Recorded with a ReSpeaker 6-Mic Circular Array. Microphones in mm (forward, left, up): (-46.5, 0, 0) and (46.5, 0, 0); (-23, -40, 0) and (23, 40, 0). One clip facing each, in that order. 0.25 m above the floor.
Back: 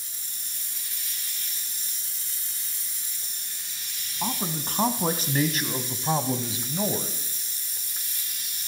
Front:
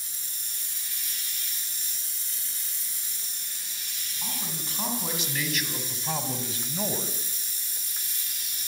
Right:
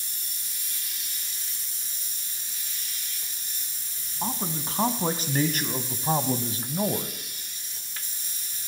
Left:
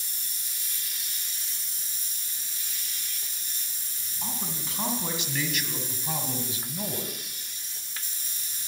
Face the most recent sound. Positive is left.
turn(degrees=-95)